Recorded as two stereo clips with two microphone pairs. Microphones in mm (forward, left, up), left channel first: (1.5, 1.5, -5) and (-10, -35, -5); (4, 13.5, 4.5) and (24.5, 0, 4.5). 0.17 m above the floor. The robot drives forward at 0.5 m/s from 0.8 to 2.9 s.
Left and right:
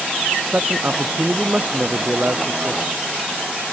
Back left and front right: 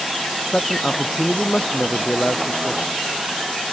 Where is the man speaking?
155° right; by 2.8 s 160° right.